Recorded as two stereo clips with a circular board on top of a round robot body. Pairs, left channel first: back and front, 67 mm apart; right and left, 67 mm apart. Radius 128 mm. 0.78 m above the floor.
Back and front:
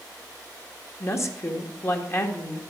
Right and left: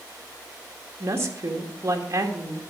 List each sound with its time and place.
1.0 s a woman speaking: 140° left, 1.7 m